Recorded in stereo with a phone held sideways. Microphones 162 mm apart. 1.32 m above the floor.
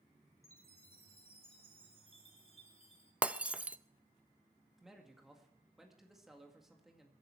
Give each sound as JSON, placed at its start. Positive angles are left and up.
{"t": 0.4, "sound": "a chime", "side_deg": 40, "distance_m": 2.5}
{"t": 3.2, "sound": "breaking glass", "side_deg": -10, "distance_m": 0.5}
{"t": 4.8, "sound": "a man speaking", "side_deg": 0, "distance_m": 2.0}